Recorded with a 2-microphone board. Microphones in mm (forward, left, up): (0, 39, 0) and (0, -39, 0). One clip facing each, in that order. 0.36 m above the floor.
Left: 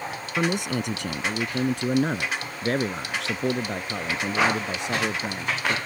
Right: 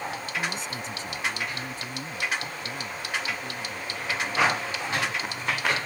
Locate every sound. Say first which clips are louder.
0.4 s a man speaking: left 10 dB; 60° left (ahead or behind); by 5.8 s 80° left